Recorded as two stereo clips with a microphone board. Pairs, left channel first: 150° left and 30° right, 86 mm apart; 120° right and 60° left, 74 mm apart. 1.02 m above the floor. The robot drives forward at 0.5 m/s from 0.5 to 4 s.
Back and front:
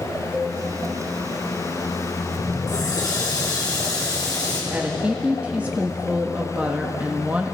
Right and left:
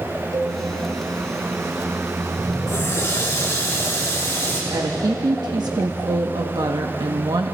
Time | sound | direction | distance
0.3 | a cowbell | 30° left | 3.5 m
2.7 | a running tap | 170° right | 7 m
4.7 | a woman speaking | 40° left | 1.3 m